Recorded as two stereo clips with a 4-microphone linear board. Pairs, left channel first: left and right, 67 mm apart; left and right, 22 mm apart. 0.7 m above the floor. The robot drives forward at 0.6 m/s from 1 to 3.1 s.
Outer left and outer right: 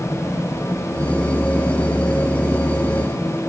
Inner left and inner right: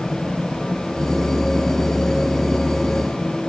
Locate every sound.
Only background noise.